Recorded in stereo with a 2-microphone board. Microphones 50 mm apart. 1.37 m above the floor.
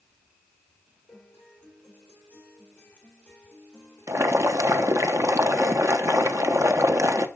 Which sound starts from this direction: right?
Boiling, at 4.1 s.